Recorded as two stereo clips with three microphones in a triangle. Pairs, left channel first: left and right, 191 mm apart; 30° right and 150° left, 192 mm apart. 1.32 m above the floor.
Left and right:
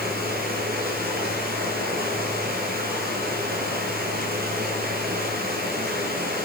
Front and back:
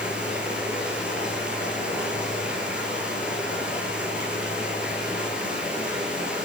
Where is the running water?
125° right, 7.5 m.